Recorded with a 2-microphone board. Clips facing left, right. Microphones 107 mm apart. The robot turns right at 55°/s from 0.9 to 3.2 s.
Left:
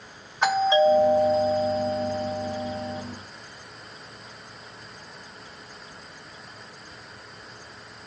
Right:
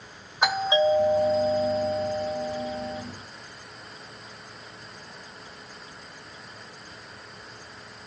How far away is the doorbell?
About 1.6 m.